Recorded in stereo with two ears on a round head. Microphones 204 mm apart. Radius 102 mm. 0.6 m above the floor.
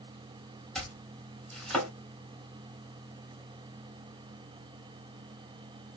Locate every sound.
0.8 s chopping: centre (ahead or behind), 2.5 m